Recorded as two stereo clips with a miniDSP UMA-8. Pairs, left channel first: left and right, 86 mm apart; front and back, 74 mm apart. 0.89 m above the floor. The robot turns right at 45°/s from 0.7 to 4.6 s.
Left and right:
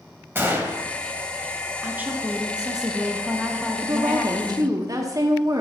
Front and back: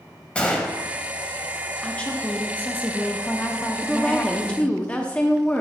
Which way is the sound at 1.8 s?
60° right.